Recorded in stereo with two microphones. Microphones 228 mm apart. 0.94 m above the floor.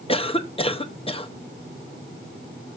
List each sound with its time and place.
0.1 s a cough: 25° left (ahead or behind), 0.8 m